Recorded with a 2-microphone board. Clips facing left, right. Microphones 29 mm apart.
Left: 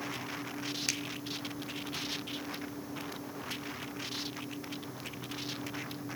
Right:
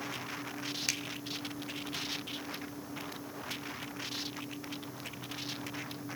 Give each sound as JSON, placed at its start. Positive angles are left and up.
{"t": 0.9, "sound": "a finger snap", "side_deg": 0, "distance_m": 1.6}